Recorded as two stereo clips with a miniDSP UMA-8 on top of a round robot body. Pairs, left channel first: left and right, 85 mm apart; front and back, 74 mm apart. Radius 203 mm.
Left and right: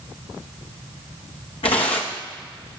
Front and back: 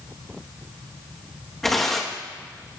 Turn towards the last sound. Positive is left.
turn(degrees=85)